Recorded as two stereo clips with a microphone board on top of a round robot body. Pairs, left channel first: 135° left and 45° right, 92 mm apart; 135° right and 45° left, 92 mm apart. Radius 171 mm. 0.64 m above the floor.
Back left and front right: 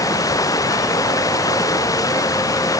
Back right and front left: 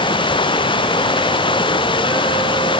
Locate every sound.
0.0 s running water: 170° right